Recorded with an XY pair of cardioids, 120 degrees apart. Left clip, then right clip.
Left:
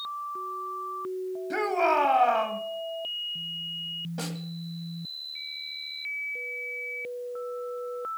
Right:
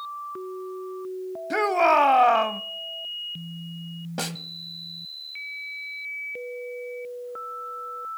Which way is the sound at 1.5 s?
35° right.